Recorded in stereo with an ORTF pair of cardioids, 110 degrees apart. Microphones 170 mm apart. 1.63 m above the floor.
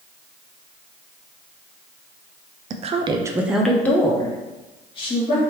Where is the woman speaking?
50° right, 0.6 m; by 5.4 s 35° left, 1.3 m.